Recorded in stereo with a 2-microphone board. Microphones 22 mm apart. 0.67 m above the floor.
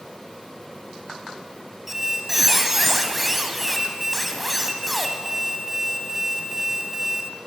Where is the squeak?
10° right (ahead or behind), 0.9 m.